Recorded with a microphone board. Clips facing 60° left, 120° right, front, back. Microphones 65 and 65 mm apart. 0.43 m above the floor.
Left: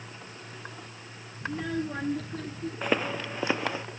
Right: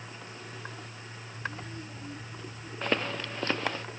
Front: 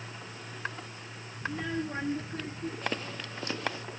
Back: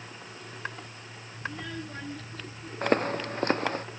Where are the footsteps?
140° left; by 3.8 s 135° left.